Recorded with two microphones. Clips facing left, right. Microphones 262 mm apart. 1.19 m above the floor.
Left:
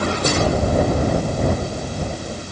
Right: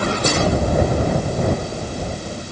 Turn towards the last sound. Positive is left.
No sound to turn to.